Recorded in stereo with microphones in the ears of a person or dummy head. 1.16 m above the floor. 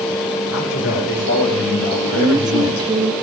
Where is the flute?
I don't hear a flute.